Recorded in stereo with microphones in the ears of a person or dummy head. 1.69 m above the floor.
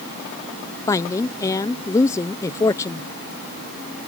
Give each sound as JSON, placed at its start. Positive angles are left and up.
{"t": 0.9, "sound": "a woman speaking", "side_deg": 20}